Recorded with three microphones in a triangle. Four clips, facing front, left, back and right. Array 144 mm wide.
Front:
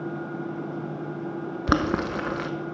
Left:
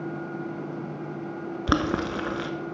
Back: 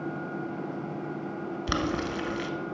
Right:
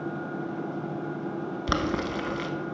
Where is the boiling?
30° left, 0.6 m.